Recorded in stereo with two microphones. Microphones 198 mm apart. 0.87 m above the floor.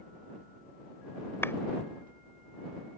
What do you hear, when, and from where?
1.4 s a clap: 10° left (ahead or behind)